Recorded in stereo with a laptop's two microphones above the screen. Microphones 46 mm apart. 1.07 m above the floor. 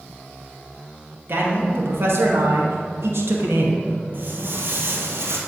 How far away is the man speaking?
About 1.9 m.